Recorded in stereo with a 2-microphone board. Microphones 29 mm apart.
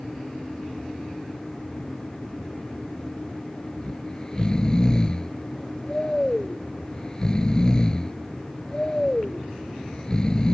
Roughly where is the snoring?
Left.